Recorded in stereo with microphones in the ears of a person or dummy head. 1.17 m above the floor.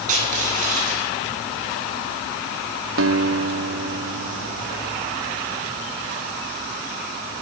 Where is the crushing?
45° right (ahead or behind), 9 m.